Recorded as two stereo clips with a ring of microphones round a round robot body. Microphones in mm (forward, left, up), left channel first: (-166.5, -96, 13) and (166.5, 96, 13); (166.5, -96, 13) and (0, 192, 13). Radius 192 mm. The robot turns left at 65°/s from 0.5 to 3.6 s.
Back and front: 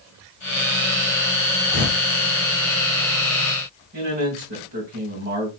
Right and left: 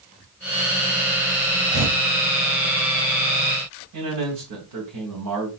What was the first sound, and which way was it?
Tearing paper, 160° left.